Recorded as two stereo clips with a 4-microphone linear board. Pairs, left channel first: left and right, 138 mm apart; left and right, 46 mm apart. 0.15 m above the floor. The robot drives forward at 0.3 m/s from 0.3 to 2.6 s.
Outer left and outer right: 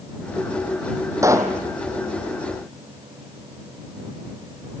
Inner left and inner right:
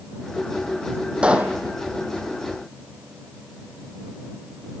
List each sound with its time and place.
1.2 s a pop: 20° right (ahead or behind), 1.9 m